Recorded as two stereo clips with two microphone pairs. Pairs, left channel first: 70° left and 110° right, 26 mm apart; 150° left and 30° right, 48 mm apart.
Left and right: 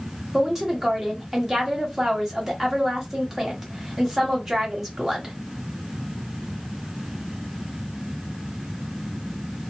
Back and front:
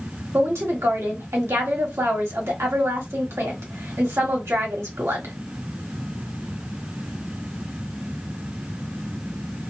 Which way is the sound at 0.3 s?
30° right.